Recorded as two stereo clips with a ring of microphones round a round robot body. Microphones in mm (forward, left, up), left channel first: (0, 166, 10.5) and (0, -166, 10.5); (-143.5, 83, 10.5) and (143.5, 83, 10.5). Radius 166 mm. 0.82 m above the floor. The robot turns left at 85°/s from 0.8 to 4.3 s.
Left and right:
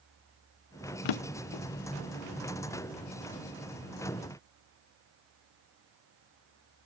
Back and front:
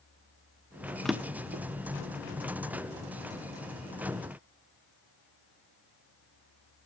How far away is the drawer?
About 0.5 m.